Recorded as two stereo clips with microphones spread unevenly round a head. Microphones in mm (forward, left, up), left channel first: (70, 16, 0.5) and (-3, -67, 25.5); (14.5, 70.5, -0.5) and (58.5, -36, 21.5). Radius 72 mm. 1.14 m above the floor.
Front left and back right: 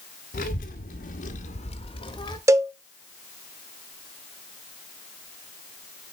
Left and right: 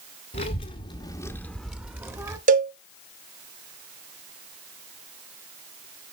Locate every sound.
0.3 s a child speaking: 95° left, 1.4 m; by 2.4 s 10° right, 1.7 m
2.5 s a cowbell: 70° right, 0.9 m